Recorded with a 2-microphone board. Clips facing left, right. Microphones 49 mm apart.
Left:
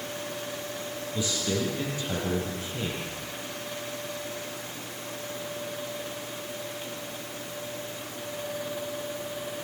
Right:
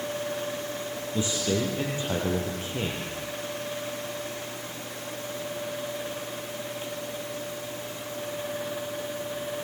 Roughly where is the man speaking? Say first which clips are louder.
Right 2 dB; right.